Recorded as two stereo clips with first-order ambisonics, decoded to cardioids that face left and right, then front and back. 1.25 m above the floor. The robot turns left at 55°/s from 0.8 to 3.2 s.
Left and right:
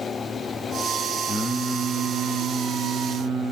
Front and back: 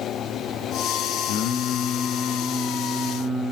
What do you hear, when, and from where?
1.3 s singing: 5° left, 0.7 m; by 3.5 s 100° right, 0.7 m